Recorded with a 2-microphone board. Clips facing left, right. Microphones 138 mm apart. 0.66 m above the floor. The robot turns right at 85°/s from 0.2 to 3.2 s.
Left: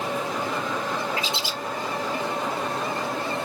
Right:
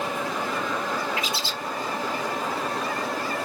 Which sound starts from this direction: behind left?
A bird, at 1.2 s.